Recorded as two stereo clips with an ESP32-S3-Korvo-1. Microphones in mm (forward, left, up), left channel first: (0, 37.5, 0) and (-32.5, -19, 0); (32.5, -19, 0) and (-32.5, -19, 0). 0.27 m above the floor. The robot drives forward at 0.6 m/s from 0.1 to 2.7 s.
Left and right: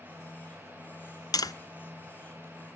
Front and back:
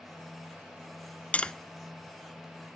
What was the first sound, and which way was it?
Tapping, 65° left.